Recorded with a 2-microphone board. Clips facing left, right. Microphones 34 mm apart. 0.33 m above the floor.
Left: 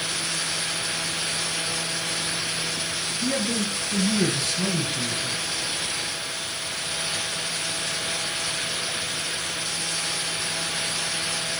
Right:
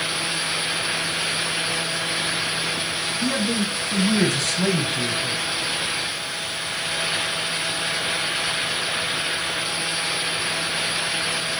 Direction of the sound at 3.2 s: 70° right (ahead or behind).